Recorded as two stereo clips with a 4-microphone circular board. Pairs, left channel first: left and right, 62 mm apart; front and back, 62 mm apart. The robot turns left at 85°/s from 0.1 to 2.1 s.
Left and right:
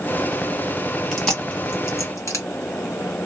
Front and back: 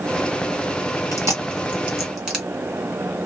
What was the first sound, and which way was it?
Chewing, 175° right.